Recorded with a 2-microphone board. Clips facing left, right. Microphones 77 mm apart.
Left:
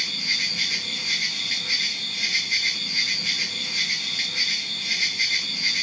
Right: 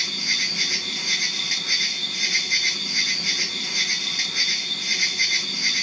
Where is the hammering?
I don't hear hammering.